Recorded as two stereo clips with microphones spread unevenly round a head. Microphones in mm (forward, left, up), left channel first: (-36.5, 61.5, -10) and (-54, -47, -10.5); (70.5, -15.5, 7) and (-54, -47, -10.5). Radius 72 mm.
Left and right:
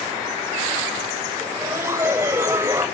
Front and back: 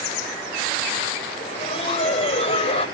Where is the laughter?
25° right, 6.5 m.